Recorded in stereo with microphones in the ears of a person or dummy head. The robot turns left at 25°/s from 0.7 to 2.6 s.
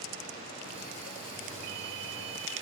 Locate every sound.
1.6 s a ringtone: 55° right (ahead or behind); by 2.6 s 75° right (ahead or behind)